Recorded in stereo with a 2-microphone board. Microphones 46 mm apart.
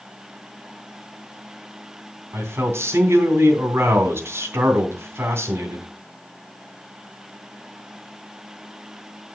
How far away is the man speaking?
About 3 m.